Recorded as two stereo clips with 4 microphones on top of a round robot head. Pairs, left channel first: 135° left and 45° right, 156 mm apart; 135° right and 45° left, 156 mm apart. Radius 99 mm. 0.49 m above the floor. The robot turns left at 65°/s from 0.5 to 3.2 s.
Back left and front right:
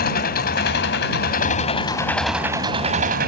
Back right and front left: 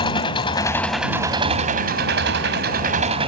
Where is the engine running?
160° left; by 3.3 s 15° right.